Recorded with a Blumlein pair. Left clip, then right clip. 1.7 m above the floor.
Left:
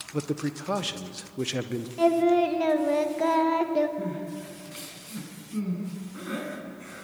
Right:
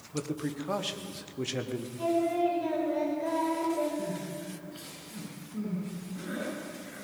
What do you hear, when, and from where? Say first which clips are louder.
0.1 s a man speaking: left 3 dB; 15° left, 1.5 m
2.0 s singing: left 6 dB; 40° left, 2.5 m
4.0 s crying: left 2 dB; 50° left, 9.5 m